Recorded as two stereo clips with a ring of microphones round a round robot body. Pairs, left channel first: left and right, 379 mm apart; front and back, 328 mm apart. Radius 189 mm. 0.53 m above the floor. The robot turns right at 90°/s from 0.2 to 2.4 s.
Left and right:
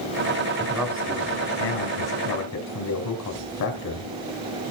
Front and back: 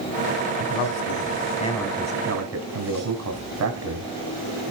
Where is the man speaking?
25° right, 3.5 m; by 4.7 s 140° left, 3.5 m.